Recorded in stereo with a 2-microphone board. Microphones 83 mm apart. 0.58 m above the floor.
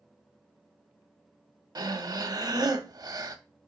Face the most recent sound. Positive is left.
turn(degrees=-50)  # may be behind; listen again after turning